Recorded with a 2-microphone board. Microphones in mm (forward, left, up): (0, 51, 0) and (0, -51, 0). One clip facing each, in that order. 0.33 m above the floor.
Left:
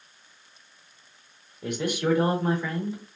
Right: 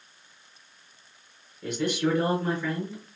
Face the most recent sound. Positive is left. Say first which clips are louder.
# even
turn(degrees=15)  # may be behind; listen again after turning